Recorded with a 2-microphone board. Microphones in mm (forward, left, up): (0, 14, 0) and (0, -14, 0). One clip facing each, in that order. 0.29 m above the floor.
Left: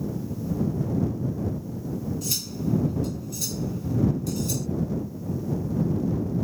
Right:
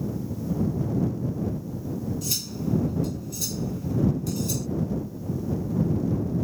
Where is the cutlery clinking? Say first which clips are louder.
Left 1 dB; centre (ahead or behind).